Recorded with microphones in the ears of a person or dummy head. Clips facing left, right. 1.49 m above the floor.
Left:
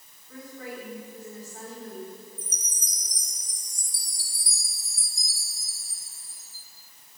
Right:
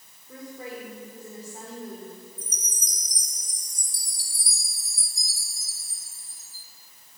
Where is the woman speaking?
25° right (ahead or behind), 5 m.